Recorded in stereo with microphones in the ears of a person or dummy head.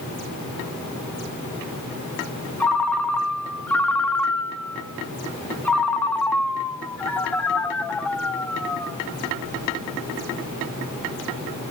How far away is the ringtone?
About 1.5 m.